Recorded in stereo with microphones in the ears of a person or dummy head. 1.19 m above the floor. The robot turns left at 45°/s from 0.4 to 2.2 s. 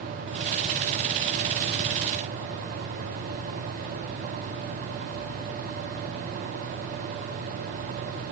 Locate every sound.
Only background noise.